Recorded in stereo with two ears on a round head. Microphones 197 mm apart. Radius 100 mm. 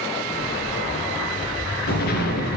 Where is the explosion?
45° left (ahead or behind), 3.5 m.